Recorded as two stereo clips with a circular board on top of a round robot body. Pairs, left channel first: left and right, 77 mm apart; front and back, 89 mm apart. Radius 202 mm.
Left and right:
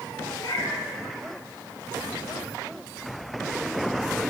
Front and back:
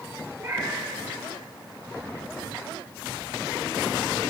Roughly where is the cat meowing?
Behind left.